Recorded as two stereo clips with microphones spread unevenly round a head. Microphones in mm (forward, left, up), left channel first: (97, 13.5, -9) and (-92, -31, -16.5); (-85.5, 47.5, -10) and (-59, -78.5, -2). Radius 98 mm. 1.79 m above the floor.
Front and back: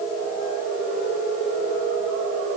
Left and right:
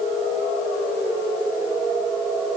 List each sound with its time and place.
Only background noise.